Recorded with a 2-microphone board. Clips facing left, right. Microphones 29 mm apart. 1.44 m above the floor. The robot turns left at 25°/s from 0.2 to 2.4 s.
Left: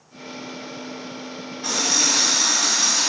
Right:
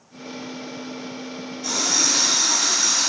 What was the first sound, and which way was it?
A running tap, 45° left (ahead or behind).